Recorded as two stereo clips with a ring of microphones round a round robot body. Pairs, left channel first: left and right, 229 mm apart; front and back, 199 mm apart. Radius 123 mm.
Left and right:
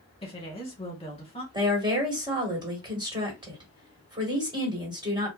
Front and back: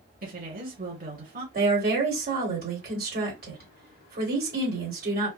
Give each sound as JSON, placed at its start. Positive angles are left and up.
{"t": 0.2, "sound": "a woman speaking", "azimuth_deg": 150, "distance_m": 2.0}
{"t": 1.5, "sound": "a woman speaking", "azimuth_deg": -155, "distance_m": 2.0}